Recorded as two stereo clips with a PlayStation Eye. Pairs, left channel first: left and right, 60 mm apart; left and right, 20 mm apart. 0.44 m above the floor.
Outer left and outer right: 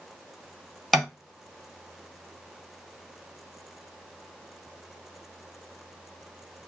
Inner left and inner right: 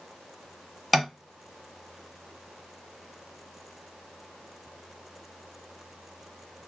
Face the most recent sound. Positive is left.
turn(degrees=0)  # may be behind; listen again after turning